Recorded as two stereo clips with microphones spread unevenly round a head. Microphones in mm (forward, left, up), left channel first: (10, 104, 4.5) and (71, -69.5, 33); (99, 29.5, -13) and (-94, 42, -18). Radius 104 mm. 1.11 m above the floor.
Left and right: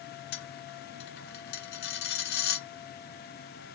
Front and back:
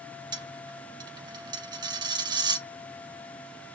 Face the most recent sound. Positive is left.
turn(degrees=115)